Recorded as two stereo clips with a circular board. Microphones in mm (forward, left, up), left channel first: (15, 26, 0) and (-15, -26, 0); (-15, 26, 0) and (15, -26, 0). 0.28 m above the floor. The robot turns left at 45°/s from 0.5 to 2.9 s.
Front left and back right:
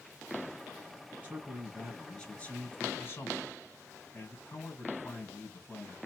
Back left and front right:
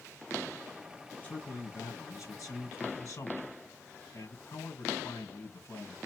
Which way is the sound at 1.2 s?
Straight behind.